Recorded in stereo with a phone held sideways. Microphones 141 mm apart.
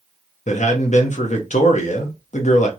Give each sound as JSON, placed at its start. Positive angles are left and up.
{"t": 0.5, "sound": "a man speaking", "side_deg": 60, "distance_m": 0.9}